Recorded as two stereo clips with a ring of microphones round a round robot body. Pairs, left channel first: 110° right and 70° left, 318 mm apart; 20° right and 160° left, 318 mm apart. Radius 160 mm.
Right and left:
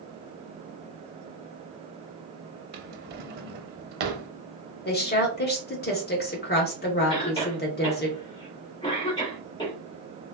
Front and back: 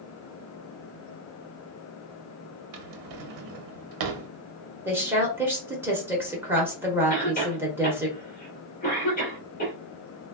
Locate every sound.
2.7 s a drawer: 130° left, 0.5 m
4.8 s a woman speaking: 125° right, 1.1 m
7.1 s a cough: 50° right, 1.4 m